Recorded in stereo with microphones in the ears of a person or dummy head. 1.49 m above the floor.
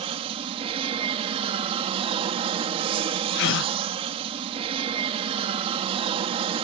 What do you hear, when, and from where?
0.0 s an aircraft: 30° right (ahead or behind)
3.4 s a gasp: 60° left (ahead or behind)